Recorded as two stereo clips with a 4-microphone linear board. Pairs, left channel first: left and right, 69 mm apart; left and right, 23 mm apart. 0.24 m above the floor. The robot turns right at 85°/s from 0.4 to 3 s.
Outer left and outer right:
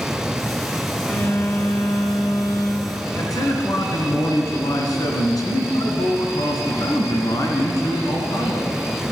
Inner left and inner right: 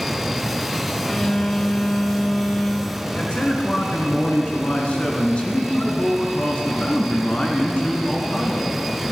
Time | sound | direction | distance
1.1 | a phone buzzing | straight ahead | 3 m
3.1 | a man speaking | 65° left (ahead or behind) | 2 m